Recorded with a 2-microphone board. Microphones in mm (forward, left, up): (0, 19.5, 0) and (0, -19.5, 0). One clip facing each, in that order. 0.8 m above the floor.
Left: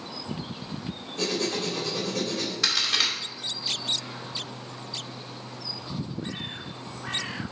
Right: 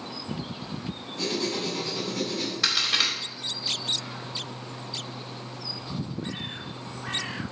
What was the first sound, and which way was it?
Writing, 55° left (ahead or behind).